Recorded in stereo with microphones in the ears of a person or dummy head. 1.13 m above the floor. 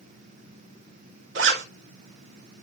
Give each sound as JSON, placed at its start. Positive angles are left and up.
{"t": 1.4, "sound": "a zipper", "side_deg": -75, "distance_m": 2.0}